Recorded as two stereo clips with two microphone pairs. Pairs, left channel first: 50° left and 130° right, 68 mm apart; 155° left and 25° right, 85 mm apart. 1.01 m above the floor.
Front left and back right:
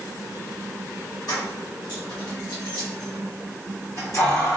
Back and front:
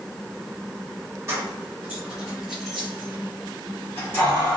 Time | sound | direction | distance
1.3 | keys jangling | 35° left | 1.3 m